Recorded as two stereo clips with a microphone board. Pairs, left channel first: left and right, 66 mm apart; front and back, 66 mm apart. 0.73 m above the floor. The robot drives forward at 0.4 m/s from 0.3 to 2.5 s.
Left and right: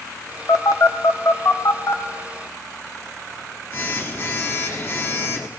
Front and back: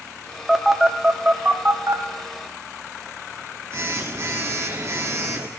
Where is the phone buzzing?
90° left, 0.8 m; by 5.5 s 140° left, 1.1 m.